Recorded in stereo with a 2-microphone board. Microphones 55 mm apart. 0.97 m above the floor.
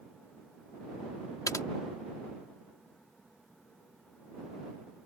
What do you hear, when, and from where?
1.5 s typing on a keyboard: 80° left